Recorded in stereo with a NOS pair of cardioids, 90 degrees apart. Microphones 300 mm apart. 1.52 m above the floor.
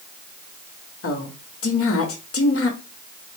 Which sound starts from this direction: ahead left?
A woman speaking, at 1.0 s.